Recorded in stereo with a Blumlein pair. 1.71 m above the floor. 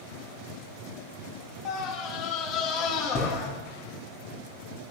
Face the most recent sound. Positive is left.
turn(degrees=30)